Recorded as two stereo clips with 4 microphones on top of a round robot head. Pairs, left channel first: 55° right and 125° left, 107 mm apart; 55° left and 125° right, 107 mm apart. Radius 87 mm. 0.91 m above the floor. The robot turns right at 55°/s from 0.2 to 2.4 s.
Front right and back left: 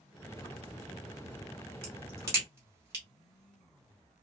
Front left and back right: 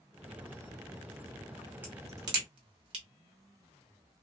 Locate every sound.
1.8 s a crack: 160° left, 0.7 m; by 3.0 s 170° right, 0.7 m